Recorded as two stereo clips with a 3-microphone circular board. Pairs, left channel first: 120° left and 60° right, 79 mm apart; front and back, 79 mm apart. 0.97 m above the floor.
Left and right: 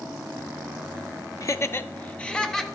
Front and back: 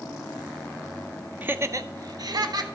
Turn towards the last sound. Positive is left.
turn(degrees=-155)